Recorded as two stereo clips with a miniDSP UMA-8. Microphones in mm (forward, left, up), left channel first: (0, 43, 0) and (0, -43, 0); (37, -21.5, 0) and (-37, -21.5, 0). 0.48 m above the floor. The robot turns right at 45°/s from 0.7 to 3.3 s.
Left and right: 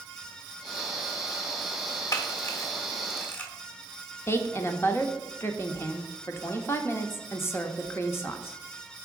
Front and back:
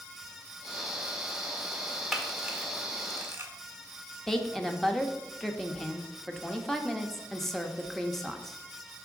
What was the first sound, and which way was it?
A camera shutter, 90° left.